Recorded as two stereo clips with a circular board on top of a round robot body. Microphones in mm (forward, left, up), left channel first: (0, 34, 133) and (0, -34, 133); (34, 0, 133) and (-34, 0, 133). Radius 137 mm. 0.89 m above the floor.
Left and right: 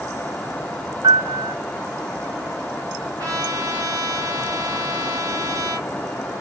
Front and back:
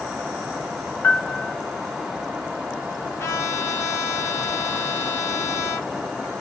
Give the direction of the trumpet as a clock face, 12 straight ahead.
2 o'clock.